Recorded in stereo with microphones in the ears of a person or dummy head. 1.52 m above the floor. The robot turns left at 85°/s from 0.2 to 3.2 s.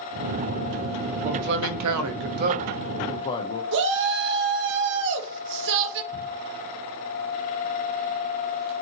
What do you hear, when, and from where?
1.2 s a man speaking: 35° right, 0.6 m; by 3.6 s 155° left, 0.6 m
3.7 s a shout: 65° right (ahead or behind), 0.8 m
6.1 s ticking: 60° right (ahead or behind), 1.6 m